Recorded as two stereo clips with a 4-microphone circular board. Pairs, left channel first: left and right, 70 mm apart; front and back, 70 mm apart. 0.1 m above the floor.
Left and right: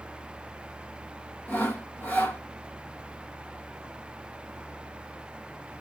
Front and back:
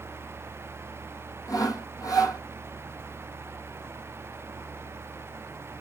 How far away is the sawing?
About 1.2 m.